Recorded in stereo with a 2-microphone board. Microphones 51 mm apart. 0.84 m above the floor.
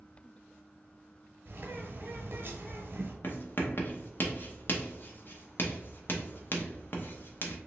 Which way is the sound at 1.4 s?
45° right (ahead or behind).